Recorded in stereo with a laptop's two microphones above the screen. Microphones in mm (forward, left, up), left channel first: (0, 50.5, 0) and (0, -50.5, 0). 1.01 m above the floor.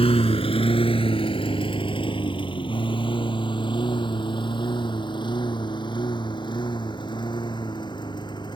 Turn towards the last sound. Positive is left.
turn(degrees=45)  # may be behind; listen again after turning